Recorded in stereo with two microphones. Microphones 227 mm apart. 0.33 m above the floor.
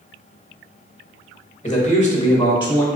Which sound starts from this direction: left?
A man speaking, at 1.6 s.